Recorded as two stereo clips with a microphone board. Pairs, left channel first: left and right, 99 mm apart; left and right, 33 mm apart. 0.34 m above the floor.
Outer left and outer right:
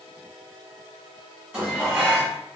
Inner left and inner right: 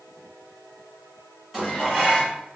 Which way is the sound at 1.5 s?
10° right (ahead or behind).